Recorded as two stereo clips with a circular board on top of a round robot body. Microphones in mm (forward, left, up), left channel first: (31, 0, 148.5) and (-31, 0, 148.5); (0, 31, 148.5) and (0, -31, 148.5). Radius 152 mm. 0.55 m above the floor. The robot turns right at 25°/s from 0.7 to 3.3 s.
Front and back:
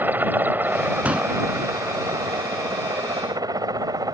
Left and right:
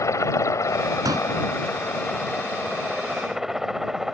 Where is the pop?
110° right; by 1.3 s 105° right.